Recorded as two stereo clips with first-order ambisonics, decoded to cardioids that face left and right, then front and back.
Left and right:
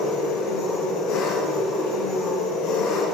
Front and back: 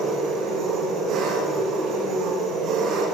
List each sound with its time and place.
0.0 s an engine running: 135° left, 7.5 m